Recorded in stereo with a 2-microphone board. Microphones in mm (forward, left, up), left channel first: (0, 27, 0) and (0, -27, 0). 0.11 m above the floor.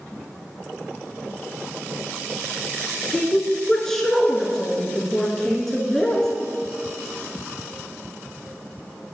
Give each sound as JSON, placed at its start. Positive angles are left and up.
{"t": 3.1, "sound": "a woman speaking", "side_deg": 10, "distance_m": 1.1}